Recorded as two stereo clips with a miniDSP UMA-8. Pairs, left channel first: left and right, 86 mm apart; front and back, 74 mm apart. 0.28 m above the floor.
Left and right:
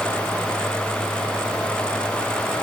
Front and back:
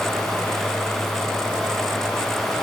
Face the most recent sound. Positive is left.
No sound to turn to.